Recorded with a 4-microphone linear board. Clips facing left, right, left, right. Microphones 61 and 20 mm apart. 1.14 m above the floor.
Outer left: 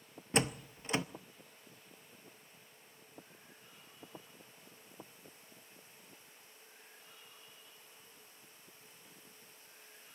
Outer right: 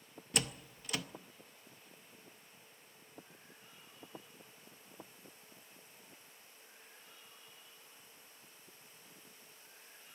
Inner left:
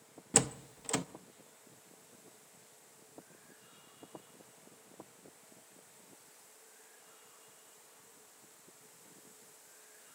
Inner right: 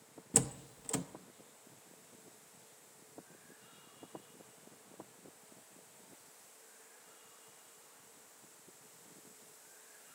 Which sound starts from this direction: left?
A door slam, at 0.3 s.